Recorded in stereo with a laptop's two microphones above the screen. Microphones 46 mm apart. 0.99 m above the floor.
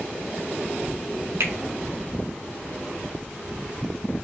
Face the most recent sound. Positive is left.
turn(degrees=-70)  # may be behind; listen again after turning